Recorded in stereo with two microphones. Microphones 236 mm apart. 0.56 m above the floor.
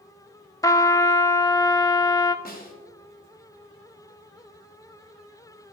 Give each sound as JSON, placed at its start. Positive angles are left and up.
{"t": 0.6, "sound": "a trumpet", "side_deg": 15, "distance_m": 0.5}
{"t": 2.5, "sound": "a snare drum", "side_deg": 40, "distance_m": 1.9}